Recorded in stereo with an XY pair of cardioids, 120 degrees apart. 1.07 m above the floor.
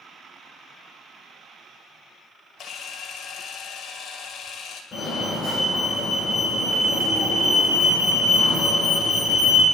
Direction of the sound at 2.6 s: 55° left.